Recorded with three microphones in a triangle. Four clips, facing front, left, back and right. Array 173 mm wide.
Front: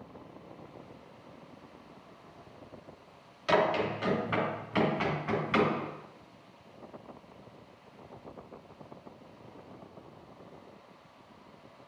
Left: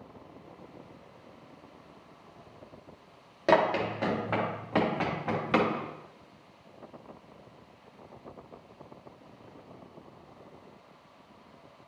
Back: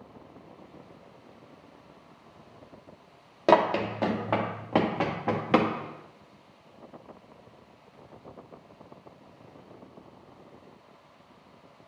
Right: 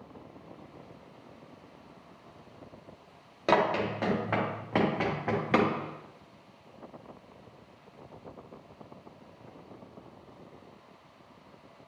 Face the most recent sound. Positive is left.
turn(degrees=-165)